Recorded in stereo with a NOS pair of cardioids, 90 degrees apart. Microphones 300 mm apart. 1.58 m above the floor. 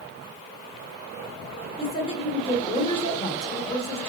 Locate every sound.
1.8 s a woman speaking: 20° left, 1.5 m